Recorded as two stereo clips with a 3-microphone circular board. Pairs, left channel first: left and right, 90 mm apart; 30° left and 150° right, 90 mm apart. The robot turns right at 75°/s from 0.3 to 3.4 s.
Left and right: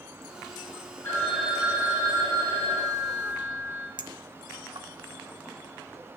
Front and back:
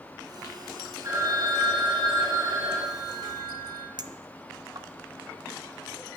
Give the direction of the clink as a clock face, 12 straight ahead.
4 o'clock.